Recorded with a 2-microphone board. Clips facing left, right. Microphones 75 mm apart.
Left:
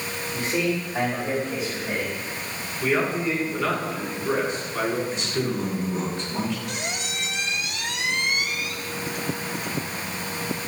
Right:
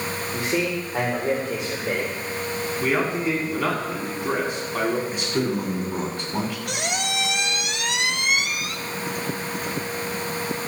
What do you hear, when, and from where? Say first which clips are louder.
0.3 s a man speaking: even; 70° right (ahead or behind), 4 m; by 2.1 s 80° right, 3.5 m
2.8 s a man speaking: even; 65° right (ahead or behind), 7.5 m
5.1 s a man speaking: right 2 dB; 55° right (ahead or behind), 7.5 m
6.7 s a squeak: right 4 dB; 70° right (ahead or behind), 0.8 m